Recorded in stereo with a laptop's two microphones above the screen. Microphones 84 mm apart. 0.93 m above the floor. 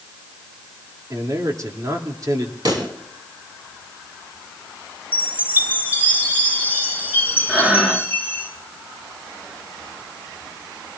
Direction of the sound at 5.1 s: 20° right (ahead or behind).